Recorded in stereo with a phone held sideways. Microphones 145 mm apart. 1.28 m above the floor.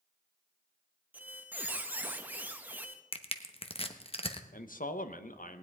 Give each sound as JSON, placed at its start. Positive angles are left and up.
{"t": 1.1, "sound": "a squeak", "side_deg": -10, "distance_m": 0.9}
{"t": 3.1, "sound": "crushing", "side_deg": 45, "distance_m": 0.9}
{"t": 4.5, "sound": "a man speaking", "side_deg": 75, "distance_m": 1.0}